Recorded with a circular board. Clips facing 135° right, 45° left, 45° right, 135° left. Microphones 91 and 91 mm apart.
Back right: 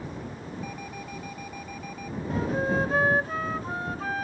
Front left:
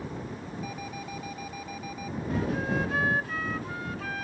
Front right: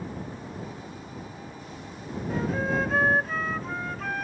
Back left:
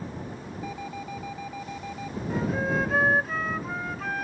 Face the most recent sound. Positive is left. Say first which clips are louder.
# back right 3 dB, even
turn(degrees=-135)